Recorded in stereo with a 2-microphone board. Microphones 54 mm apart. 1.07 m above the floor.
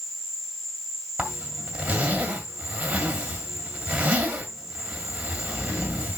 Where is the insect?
10° right (ahead or behind), 6 m.